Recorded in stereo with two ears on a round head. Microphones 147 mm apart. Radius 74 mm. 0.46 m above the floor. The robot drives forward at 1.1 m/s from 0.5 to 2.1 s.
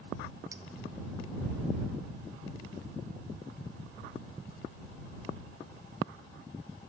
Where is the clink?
20° right (ahead or behind), 1.2 m.